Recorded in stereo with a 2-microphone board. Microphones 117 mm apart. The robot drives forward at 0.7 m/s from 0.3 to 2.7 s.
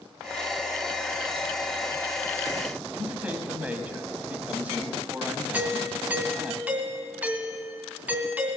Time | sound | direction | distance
2.9 | a man speaking | 15° right (ahead or behind) | 1.3 m
5.5 | a doorbell | 10° right (ahead or behind) | 1.9 m